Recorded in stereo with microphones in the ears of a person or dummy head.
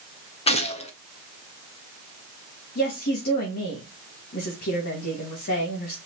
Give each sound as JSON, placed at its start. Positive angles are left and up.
{"t": 0.5, "sound": "a gunshot", "side_deg": 30, "distance_m": 1.5}
{"t": 2.8, "sound": "a woman speaking", "side_deg": 50, "distance_m": 2.5}